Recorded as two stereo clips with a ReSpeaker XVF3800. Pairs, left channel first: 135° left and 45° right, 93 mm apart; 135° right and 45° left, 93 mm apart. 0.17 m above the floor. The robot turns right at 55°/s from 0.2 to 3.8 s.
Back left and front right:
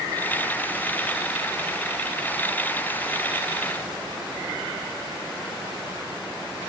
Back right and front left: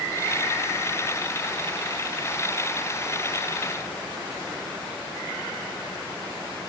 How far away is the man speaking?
No man speaking in this recording.